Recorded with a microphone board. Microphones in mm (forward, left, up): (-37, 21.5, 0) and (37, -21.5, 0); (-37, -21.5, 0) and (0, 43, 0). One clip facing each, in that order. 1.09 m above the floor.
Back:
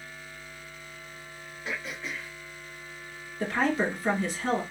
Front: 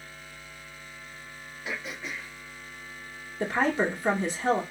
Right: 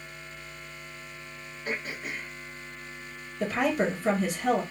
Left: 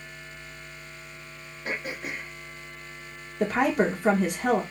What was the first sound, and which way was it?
Throat clearing, 55° left.